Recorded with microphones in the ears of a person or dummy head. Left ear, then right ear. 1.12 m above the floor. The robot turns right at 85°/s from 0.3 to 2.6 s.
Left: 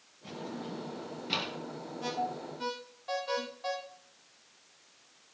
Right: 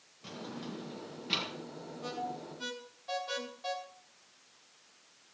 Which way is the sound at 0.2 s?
80° right.